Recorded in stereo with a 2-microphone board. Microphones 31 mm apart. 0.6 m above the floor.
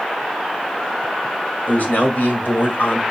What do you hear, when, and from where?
1.7 s a man speaking: 65° left (ahead or behind), 2.5 m; by 3.0 s 70° left (ahead or behind), 2 m